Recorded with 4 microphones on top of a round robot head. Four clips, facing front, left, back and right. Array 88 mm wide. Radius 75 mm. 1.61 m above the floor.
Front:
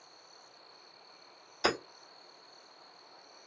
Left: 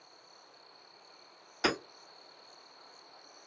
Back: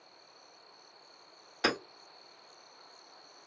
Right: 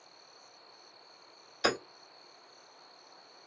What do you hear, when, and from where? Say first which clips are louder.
1.6 s hammering: right 1 dB, even; 150° left, 2 m